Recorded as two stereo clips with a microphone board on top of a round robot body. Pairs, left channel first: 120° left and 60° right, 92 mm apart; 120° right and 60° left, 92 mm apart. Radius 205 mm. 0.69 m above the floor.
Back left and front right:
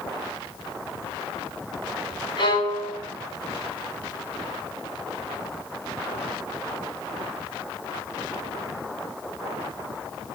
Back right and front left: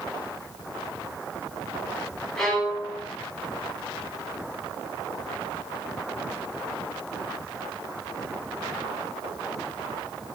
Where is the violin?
155° left, 9.5 m.